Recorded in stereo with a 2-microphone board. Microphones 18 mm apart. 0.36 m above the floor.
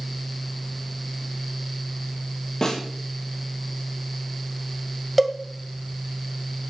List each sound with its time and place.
2.6 s a snare drum: 40° left (ahead or behind), 8.5 m
5.2 s a cowbell: centre (ahead or behind), 1.8 m